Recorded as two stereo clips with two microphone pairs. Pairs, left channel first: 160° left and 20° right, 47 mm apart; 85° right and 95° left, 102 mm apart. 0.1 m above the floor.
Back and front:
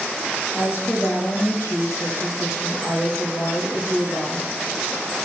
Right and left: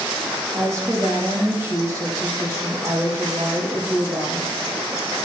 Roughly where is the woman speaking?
Behind left.